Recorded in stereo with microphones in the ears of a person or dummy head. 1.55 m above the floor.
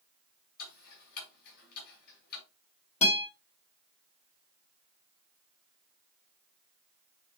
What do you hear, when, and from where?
0.6 s ticking: 55° left (ahead or behind), 5.5 m
3.0 s a guitar: 30° left (ahead or behind), 5 m